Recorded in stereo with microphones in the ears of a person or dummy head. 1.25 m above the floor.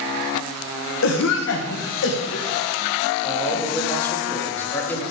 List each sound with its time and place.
1.0 s a cough: 60° left (ahead or behind), 1.5 m
3.2 s a man speaking: 15° left (ahead or behind), 2 m